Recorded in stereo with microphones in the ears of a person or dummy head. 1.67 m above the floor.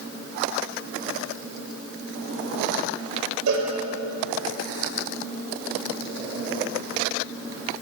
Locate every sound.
3.5 s a cowbell: 70° right (ahead or behind), 5.5 m